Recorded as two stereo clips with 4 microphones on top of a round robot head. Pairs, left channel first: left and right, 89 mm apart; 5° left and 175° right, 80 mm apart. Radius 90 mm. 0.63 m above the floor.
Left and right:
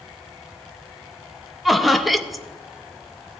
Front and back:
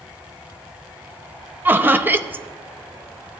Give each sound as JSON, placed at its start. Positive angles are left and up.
{"t": 1.6, "sound": "laughter", "azimuth_deg": -175, "distance_m": 0.8}